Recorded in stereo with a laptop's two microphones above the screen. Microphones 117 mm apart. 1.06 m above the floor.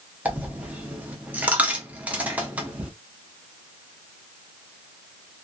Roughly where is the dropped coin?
Centre.